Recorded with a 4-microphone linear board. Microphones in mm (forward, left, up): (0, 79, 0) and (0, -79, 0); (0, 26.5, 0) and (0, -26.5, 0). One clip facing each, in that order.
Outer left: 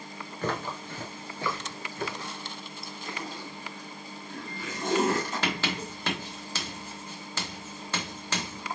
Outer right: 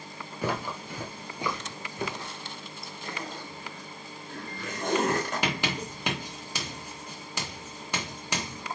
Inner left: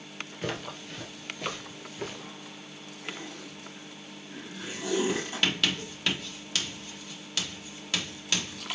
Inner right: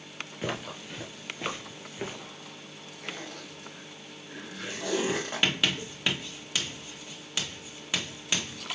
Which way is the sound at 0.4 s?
10° right (ahead or behind).